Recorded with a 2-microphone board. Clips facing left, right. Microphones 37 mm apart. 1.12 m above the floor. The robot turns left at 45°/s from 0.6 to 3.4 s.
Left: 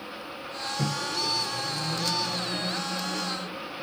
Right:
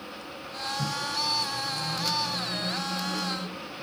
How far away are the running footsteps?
I don't hear running footsteps.